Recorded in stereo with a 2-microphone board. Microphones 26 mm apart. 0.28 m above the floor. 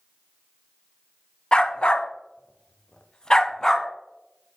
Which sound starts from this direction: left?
A dog barking, at 1.5 s.